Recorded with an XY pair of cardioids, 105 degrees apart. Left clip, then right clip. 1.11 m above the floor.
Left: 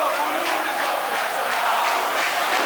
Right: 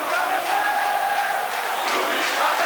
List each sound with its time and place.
Only background noise.